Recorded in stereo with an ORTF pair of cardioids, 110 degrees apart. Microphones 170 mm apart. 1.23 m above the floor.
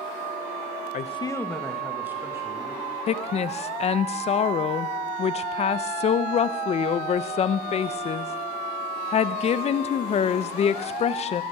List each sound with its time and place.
0.9 s a man speaking: 50° left, 0.8 m; by 3.0 s 20° right, 3 m
3.1 s a woman speaking: 40° left, 0.6 m